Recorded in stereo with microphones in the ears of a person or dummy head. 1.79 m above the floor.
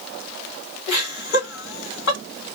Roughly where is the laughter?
Left.